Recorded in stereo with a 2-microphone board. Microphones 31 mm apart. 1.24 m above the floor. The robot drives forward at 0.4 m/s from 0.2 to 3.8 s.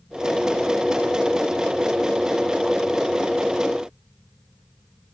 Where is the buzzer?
I don't hear a buzzer.